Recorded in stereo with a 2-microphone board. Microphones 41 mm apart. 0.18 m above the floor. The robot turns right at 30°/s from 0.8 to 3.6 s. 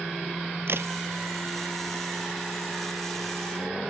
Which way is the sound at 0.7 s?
65° right (ahead or behind).